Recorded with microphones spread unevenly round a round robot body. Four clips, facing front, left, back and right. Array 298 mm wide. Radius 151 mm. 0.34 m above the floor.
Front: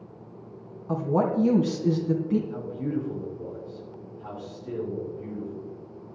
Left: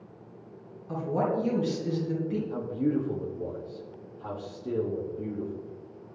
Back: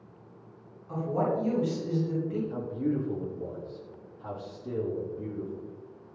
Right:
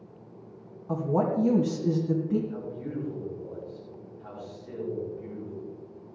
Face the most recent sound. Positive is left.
turn(degrees=105)